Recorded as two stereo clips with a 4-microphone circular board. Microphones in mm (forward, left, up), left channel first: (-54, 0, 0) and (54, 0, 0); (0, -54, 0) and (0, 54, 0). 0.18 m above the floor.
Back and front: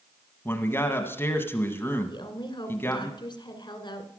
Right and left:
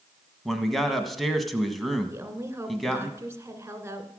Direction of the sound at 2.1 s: 150° left.